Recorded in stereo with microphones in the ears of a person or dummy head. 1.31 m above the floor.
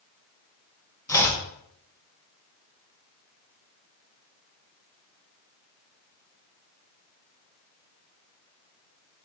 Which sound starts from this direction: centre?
Chopping, at 1.1 s.